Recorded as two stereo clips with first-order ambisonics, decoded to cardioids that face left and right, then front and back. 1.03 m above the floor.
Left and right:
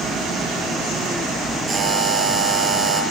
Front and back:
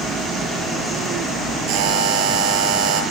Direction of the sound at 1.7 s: 160° right.